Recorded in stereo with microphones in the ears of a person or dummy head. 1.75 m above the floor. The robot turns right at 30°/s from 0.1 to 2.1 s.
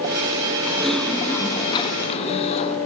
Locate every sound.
0.7 s typing on a keyboard: 5° right, 2.5 m; by 2.8 s 35° left, 2.5 m